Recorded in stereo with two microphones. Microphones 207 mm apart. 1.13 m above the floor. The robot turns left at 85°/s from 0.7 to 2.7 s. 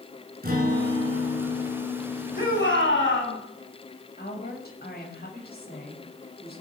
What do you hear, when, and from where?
0.4 s a guitar: 45° right, 6 m; by 3.0 s 145° left, 6 m
2.4 s a shout: 40° left (ahead or behind), 8.5 m; by 3.4 s 70° left (ahead or behind), 8.5 m
4.2 s a woman speaking: 50° left (ahead or behind), 6.5 m